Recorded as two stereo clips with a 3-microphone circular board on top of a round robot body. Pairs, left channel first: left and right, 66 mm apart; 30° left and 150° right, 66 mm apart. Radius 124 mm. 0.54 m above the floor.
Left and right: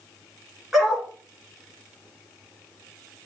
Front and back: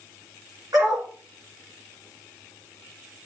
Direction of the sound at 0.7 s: Straight behind.